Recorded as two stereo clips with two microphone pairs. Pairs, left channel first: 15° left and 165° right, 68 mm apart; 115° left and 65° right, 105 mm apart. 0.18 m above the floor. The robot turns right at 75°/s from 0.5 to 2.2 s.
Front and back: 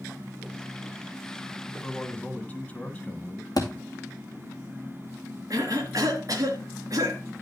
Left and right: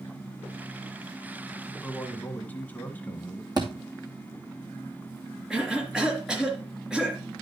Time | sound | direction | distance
1.8 | a man speaking | 35° left | 1.1 m
3.6 | a thud | 15° right | 2.5 m
5.5 | a cough | 150° right | 3 m